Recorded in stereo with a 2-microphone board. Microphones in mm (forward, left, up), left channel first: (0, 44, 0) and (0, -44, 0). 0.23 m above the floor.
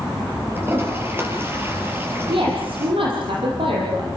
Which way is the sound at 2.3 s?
80° right.